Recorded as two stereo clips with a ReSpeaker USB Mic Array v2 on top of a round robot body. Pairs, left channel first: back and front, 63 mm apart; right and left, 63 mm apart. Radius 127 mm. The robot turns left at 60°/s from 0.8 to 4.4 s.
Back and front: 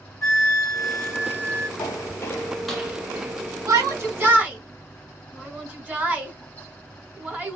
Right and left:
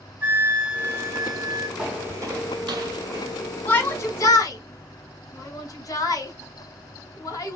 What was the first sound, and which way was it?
A flute, 155° left.